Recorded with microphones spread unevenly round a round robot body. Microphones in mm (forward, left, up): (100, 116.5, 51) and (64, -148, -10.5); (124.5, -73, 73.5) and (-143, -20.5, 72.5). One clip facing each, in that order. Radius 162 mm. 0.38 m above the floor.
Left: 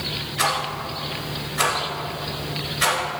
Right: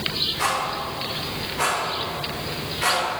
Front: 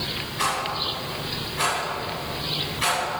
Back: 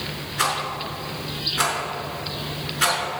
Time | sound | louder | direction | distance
0.4 | a rattle | left 1 dB, even | 135° left | 3 m